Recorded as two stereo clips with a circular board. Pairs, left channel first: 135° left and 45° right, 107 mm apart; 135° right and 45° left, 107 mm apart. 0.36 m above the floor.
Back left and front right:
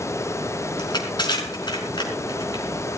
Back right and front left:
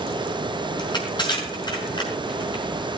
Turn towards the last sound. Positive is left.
turn(degrees=180)